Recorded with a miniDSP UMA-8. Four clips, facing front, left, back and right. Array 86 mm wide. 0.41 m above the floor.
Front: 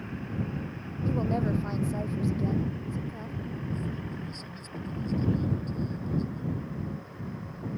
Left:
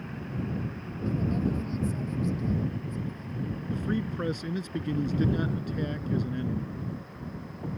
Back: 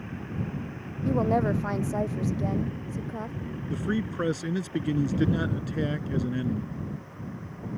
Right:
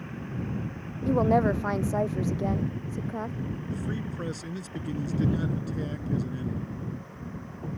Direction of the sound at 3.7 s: 170° left.